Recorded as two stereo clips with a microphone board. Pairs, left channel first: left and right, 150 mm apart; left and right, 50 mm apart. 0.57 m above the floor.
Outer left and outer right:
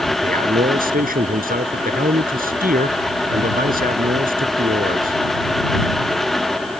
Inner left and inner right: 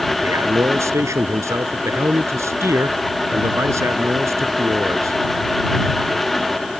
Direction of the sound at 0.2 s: 75° right (ahead or behind).